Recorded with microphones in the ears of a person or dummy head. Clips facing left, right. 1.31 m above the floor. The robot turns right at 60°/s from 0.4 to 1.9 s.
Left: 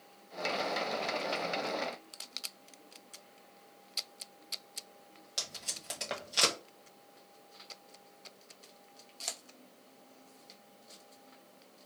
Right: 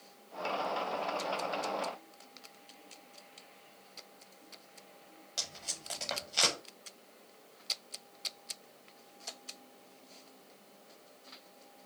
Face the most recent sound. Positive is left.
turn(degrees=20)  # may be behind; listen again after turning